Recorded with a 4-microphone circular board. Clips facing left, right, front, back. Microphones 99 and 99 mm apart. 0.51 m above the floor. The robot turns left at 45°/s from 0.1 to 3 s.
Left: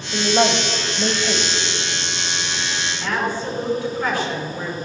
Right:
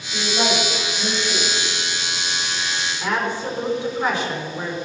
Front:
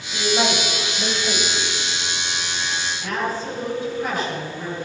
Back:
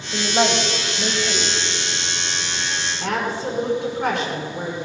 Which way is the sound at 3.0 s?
165° right.